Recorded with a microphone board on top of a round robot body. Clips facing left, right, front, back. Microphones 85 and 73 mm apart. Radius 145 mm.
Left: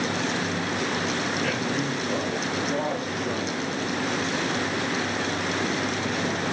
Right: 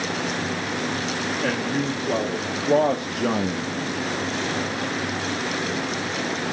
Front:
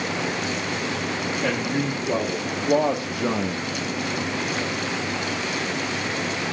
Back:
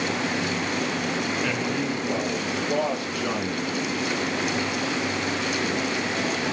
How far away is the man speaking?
About 2.5 m.